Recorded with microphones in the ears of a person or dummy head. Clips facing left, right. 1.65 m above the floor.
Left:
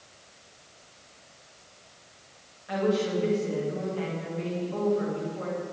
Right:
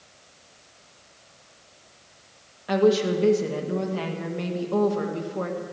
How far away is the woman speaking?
About 2 m.